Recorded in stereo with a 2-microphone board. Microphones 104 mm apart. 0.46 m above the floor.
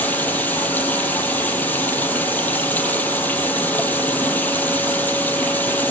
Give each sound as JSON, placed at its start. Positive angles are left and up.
{"t": 0.0, "sound": "running water", "side_deg": 20, "distance_m": 5.0}